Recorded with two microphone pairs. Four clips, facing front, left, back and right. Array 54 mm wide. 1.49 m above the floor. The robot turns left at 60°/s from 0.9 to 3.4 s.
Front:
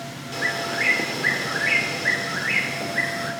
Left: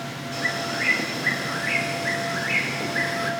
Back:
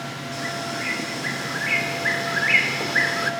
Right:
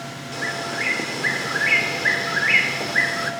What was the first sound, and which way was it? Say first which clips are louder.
A bird: even, front 5 dB; 35° right.